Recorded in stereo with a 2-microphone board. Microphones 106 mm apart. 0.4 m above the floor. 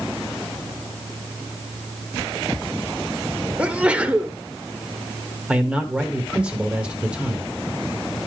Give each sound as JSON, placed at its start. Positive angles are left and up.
{"t": 3.6, "sound": "a sneeze", "side_deg": -10, "distance_m": 0.9}
{"t": 5.5, "sound": "a man speaking", "side_deg": -10, "distance_m": 1.3}